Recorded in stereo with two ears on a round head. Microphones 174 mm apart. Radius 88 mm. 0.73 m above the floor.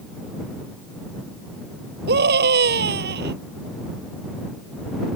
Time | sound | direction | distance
2.1 | a scream | 60° right (ahead or behind) | ?